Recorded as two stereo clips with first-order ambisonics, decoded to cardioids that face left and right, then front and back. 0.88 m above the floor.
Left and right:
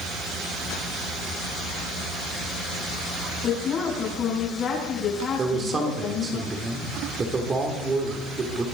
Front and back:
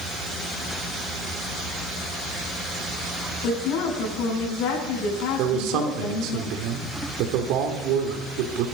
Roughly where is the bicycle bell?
No bicycle bell in this recording.